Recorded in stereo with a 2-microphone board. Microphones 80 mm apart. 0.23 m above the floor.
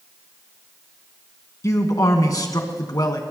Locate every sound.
1.6 s a man speaking: 45° left (ahead or behind), 1.9 m; by 3.2 s 55° left (ahead or behind), 1.9 m